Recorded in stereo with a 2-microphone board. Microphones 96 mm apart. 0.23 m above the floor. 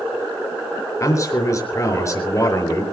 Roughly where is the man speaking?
Left.